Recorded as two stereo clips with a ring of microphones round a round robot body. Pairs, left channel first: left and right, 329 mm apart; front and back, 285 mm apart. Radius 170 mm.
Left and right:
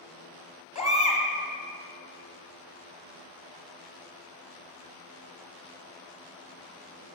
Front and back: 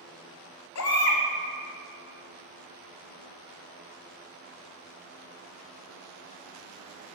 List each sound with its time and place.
0.8 s a baby crying: 20° left, 1.0 m